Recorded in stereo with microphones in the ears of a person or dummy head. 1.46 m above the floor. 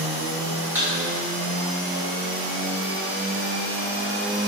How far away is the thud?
About 1.4 m.